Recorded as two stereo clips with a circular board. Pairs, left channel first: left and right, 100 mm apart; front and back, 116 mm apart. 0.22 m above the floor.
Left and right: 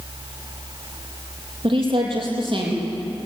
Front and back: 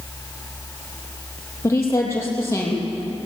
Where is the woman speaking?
65° right, 7 m.